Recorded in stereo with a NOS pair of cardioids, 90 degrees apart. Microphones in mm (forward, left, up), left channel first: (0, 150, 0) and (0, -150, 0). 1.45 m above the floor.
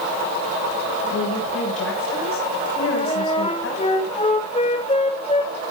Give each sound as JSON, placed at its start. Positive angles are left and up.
{"t": 1.1, "sound": "a woman speaking", "azimuth_deg": 45, "distance_m": 7.0}
{"t": 2.8, "sound": "a flute", "azimuth_deg": 20, "distance_m": 6.0}